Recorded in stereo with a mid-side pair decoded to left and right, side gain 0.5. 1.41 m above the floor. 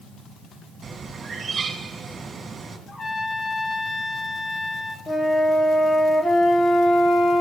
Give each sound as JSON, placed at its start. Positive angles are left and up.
{"t": 0.8, "sound": "a bird", "azimuth_deg": -35, "distance_m": 2.0}
{"t": 2.9, "sound": "a trumpet", "azimuth_deg": 35, "distance_m": 1.1}
{"t": 5.1, "sound": "a flute", "azimuth_deg": 25, "distance_m": 1.1}